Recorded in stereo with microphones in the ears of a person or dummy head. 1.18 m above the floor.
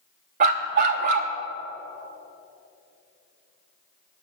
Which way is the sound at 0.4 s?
45° right (ahead or behind).